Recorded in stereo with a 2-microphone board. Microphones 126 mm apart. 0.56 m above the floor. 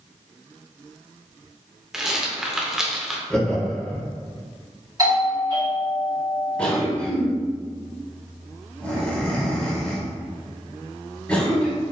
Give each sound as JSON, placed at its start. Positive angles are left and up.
{"t": 1.9, "sound": "a rattle", "side_deg": -5, "distance_m": 0.5}
{"t": 3.3, "sound": "laughter", "side_deg": 5, "distance_m": 1.0}
{"t": 5.0, "sound": "a doorbell", "side_deg": -35, "distance_m": 1.2}
{"t": 6.6, "sound": "a cough", "side_deg": 10, "distance_m": 1.1}